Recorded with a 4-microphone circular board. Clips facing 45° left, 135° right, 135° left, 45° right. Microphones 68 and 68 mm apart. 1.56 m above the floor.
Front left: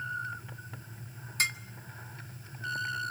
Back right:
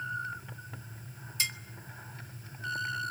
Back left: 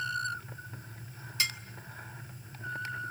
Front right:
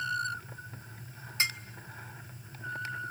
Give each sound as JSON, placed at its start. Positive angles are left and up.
{"t": 1.4, "sound": "dishes clattering", "azimuth_deg": 10, "distance_m": 1.8}